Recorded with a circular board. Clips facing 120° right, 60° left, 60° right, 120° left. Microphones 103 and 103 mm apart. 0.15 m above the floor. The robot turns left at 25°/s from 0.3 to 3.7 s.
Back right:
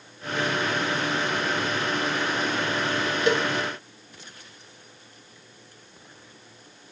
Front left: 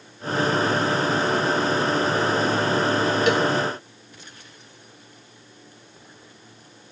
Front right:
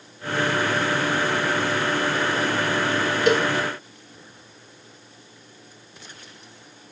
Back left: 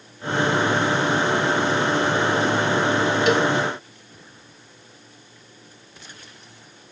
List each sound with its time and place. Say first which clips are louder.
3.3 s a cowbell: front left 1 dB, front right 1 dB; 75° right, 1.2 m; by 3.5 s 80° right, 1.2 m